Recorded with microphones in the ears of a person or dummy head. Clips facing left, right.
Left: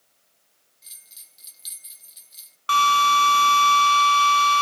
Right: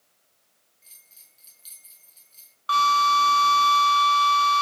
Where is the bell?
25° left (ahead or behind), 1.6 m.